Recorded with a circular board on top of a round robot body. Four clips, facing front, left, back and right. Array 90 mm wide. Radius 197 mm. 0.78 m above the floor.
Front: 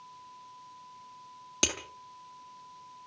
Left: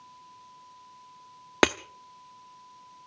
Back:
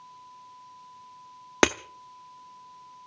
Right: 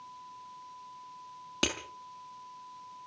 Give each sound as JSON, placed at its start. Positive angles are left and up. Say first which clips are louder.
{"t": 1.6, "sound": "breaking glass", "louder": "left 11 dB, back 13 dB", "azimuth_deg": 140, "distance_m": 0.6}